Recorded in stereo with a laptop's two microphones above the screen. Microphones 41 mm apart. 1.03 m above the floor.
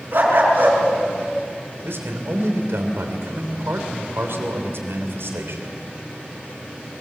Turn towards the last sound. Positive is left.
turn(degrees=-85)